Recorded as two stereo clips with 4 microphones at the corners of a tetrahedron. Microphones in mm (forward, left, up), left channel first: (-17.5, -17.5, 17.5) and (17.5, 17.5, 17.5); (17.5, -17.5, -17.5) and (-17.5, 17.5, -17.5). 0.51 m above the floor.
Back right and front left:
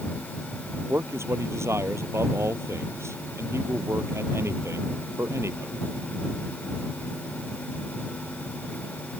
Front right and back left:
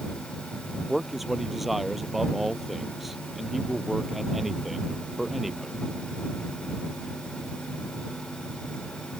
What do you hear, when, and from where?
0.9 s a man speaking: 45° left